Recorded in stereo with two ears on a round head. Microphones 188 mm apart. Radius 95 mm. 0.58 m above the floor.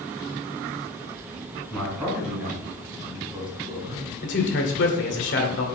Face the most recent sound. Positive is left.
turn(degrees=55)  # may be behind; listen again after turning